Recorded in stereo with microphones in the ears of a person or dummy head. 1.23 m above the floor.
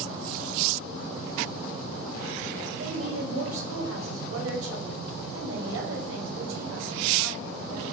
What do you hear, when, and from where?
2.8 s a woman speaking: 80° right, 7.5 m